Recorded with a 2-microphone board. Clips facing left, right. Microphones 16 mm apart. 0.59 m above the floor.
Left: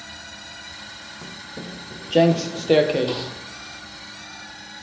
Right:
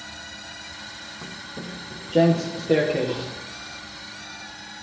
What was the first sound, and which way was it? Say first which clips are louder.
Footsteps: left 1 dB; 5° left (ahead or behind).